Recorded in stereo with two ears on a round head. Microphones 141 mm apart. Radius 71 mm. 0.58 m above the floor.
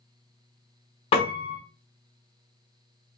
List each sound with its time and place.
1.1 s a piano: 35° left (ahead or behind), 0.9 m